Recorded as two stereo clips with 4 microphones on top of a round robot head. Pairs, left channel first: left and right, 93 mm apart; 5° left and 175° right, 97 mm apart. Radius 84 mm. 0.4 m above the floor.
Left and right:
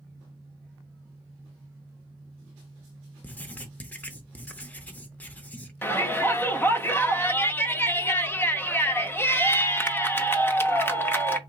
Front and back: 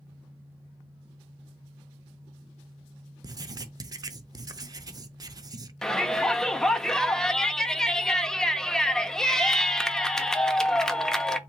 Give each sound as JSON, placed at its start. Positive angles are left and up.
{"t": 3.2, "sound": "writing", "azimuth_deg": 155, "distance_m": 0.6}
{"t": 5.8, "sound": "a shout", "azimuth_deg": 80, "distance_m": 0.8}